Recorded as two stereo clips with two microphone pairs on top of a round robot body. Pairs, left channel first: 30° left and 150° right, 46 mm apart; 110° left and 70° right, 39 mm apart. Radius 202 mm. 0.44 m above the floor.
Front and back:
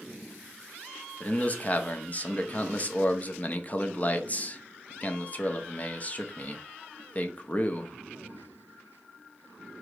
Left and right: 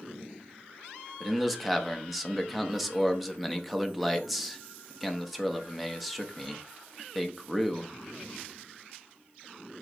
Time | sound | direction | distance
1.2 | a man speaking | 30° left | 1.1 m